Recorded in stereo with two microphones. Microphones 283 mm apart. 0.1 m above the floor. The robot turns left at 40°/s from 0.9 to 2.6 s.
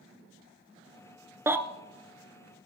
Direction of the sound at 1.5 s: 10° right (ahead or behind).